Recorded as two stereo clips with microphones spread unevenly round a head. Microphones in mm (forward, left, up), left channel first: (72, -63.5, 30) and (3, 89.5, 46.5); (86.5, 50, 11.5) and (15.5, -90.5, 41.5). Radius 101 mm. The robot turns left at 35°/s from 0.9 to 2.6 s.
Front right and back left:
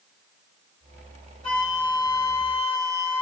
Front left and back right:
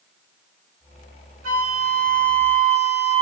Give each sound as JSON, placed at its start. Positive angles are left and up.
{"t": 1.4, "sound": "a flute", "azimuth_deg": -150, "distance_m": 2.5}